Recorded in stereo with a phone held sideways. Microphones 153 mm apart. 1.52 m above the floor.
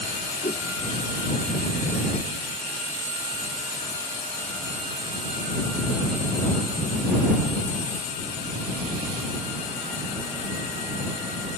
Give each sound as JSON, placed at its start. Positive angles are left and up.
{"t": 0.4, "sound": "a whoosh", "side_deg": 60}